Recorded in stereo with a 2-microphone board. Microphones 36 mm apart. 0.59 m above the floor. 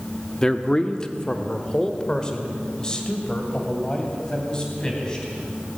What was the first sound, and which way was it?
A man speaking, 15° left (ahead or behind).